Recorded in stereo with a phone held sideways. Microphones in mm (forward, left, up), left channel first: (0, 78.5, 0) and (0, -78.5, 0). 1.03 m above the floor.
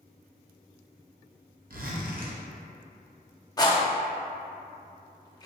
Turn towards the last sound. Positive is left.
turn(degrees=25)  # may be behind; listen again after turning